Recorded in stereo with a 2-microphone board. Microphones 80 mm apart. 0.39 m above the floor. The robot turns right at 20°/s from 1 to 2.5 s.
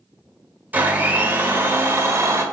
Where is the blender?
20° right (ahead or behind), 1.7 m; by 2.4 s 35° right (ahead or behind), 1.7 m.